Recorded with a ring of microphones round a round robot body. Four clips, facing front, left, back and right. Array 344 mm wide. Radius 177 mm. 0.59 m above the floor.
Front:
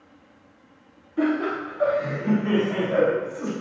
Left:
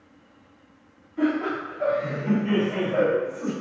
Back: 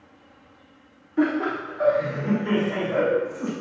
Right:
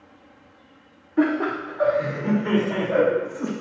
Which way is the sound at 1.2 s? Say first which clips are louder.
Right 3 dB, back 1 dB; 105° right.